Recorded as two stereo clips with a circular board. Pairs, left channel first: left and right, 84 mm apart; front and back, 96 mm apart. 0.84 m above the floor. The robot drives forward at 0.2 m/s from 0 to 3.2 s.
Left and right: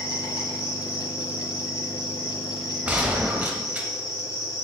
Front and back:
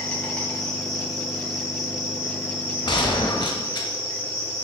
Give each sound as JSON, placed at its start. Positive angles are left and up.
{"t": 0.0, "sound": "an insect", "azimuth_deg": -75, "distance_m": 1.0}
{"t": 2.9, "sound": "a gunshot", "azimuth_deg": -20, "distance_m": 0.5}